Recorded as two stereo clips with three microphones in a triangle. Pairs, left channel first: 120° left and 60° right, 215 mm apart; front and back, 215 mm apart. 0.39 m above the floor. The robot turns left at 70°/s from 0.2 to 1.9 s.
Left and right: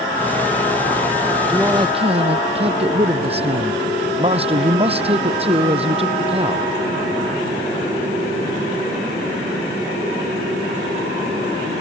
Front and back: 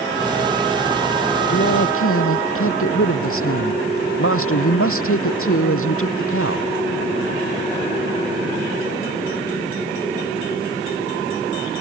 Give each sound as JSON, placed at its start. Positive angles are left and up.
{"t": 1.5, "sound": "a man speaking", "azimuth_deg": 30}